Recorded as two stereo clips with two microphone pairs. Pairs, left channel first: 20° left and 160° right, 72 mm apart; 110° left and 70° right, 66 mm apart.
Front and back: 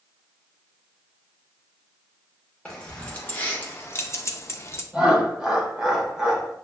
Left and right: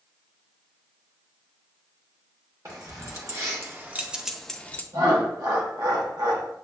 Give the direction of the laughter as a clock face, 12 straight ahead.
3 o'clock.